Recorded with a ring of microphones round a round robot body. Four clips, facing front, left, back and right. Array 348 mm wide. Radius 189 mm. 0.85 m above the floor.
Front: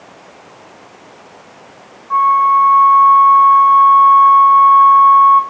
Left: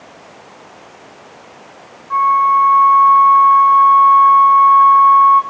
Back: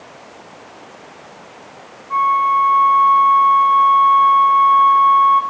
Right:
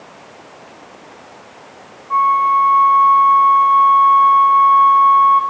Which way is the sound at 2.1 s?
10° left.